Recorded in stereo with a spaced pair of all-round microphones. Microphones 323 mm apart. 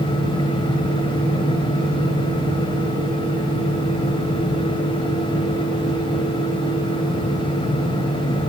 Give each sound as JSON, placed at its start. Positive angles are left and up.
{"t": 0.0, "sound": "a fan", "side_deg": 15, "distance_m": 1.8}